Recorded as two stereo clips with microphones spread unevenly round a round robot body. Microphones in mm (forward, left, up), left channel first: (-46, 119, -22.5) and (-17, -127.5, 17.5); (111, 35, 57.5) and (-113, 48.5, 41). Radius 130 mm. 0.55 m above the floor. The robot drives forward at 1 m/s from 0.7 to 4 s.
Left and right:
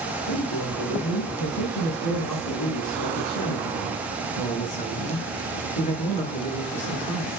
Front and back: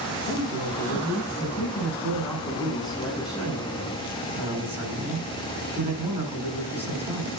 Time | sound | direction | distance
0.3 | a man speaking | 70° left | 7.5 m